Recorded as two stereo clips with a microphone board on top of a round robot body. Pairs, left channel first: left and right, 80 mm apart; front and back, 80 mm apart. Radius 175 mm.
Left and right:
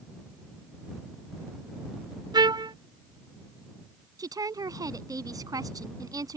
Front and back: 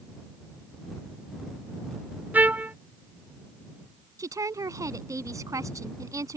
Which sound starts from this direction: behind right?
A woman speaking, at 4.2 s.